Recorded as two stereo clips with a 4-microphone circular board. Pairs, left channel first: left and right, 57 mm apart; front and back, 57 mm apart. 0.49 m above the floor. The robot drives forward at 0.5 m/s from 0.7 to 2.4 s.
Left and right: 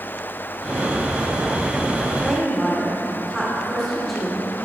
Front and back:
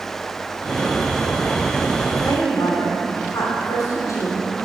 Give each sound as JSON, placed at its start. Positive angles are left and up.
{"t": 2.2, "sound": "a woman speaking", "azimuth_deg": 0, "distance_m": 2.0}